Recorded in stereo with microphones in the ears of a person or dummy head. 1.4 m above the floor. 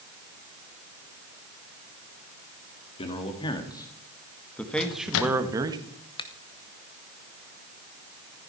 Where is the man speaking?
30° left (ahead or behind), 2.5 m; by 5.8 s 25° right (ahead or behind), 1.4 m.